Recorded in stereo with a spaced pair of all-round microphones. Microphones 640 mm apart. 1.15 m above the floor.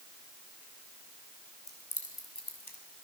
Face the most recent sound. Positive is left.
turn(degrees=40)  # may be behind; listen again after turning